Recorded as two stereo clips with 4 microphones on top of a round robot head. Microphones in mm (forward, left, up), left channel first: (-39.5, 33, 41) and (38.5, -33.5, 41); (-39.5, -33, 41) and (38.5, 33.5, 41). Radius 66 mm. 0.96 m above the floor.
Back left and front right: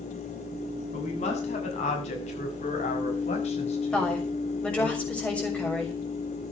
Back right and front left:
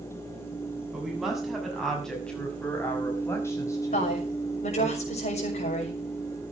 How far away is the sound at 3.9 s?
About 6.5 m.